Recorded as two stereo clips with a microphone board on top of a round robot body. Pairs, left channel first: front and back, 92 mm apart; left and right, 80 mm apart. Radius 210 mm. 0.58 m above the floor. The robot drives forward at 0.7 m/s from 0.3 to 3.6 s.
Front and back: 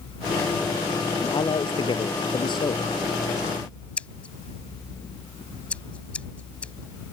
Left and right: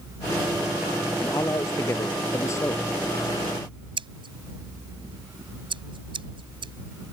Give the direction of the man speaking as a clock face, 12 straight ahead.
11 o'clock.